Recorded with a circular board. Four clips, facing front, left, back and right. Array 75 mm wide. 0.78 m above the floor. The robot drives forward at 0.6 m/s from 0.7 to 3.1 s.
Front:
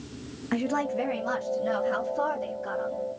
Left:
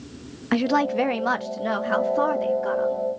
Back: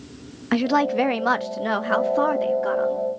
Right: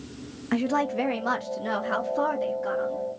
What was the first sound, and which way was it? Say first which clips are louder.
A woman speaking: left 4 dB, back 8 dB; 145° left.